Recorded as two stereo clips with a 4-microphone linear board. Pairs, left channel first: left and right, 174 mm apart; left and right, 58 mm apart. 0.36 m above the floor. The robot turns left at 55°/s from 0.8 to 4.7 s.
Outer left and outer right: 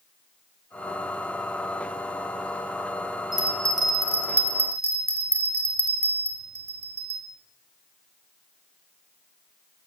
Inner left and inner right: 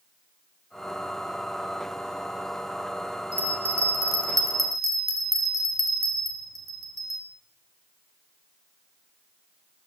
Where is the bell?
25° right, 1.2 m; by 7.2 s 100° right, 1.2 m.